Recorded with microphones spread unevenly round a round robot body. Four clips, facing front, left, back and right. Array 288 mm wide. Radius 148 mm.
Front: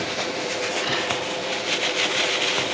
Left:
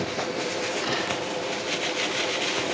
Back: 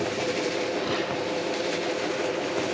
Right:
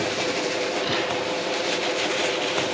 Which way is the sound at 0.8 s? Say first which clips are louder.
Right 3 dB, front 1 dB; straight behind.